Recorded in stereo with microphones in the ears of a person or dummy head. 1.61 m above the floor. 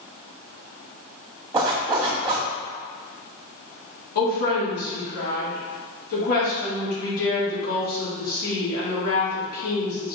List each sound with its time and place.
1.5 s a zipper: 20° right (ahead or behind), 1.8 m
4.2 s a woman speaking: 80° left, 2.5 m